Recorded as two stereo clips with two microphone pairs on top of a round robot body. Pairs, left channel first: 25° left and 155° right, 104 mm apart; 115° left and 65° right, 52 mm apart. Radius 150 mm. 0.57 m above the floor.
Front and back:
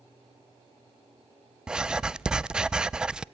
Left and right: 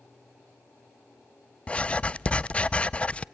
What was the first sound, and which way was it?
Writing, 135° left.